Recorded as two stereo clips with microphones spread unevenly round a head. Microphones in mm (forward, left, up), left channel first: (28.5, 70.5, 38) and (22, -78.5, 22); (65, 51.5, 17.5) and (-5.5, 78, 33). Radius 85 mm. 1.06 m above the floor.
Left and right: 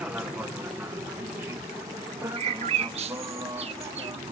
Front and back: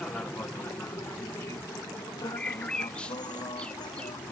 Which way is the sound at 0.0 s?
35° right.